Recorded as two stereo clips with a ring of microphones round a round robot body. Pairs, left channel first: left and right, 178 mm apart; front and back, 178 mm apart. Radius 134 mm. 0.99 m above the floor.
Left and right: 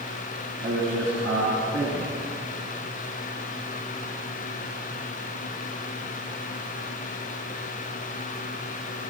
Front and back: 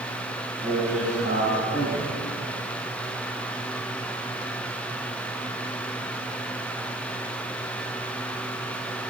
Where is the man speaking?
130° right, 9.5 m.